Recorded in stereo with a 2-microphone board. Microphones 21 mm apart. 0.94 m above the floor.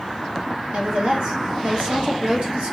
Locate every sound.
0.7 s a woman speaking: 70° right (ahead or behind), 1.3 m